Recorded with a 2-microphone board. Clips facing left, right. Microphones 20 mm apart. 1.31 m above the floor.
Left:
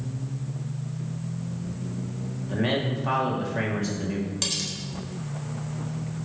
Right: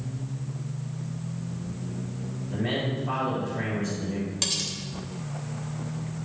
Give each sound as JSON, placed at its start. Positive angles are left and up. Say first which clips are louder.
{"t": 2.4, "sound": "a man speaking", "louder": "left 3 dB", "side_deg": 60, "distance_m": 3.0}
{"t": 4.4, "sound": "cutlery clinking", "louder": "right 2 dB", "side_deg": -5, "distance_m": 1.4}